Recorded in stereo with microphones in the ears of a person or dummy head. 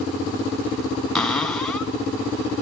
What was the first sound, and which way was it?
A cupboard door, centre (ahead or behind).